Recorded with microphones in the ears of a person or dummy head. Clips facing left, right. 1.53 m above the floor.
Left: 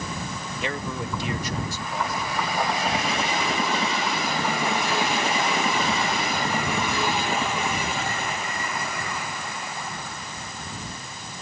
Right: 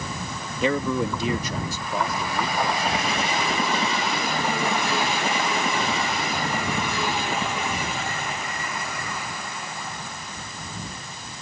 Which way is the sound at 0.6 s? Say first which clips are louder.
Right 9 dB; 85° right.